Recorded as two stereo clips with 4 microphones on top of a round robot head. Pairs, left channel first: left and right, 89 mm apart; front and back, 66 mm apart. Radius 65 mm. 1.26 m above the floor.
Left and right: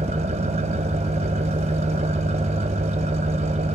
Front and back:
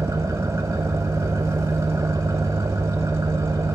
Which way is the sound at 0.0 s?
115° right.